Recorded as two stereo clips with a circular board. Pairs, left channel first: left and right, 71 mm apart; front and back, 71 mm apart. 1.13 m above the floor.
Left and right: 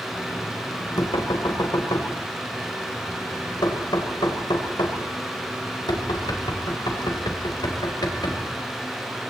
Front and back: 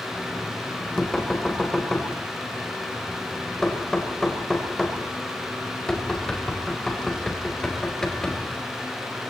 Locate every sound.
0.1 s knocking: 80° left, 3.5 m